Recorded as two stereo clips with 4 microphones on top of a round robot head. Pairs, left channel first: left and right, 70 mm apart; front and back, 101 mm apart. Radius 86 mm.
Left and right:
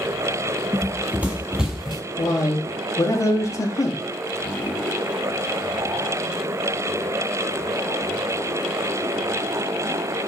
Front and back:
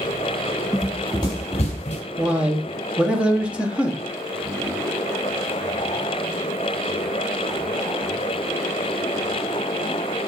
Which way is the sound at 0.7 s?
100° right.